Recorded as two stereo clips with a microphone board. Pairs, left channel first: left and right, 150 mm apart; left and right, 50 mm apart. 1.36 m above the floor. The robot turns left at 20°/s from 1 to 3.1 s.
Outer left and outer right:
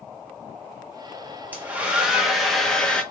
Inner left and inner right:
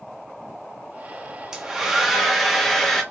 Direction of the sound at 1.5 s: 160° right.